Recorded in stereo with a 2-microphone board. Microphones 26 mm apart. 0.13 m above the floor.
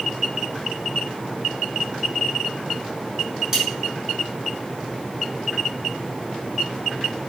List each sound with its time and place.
3.5 s cutlery clinking: 20° right (ahead or behind), 1.0 m